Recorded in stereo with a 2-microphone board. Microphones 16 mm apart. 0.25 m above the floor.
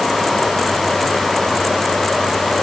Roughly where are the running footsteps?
No running footsteps in this recording.